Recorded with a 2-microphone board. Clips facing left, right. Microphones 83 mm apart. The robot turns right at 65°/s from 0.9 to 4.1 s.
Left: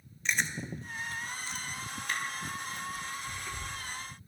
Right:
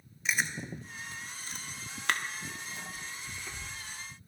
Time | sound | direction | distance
0.2 | chewing | 5° right (ahead or behind) | 1.1 m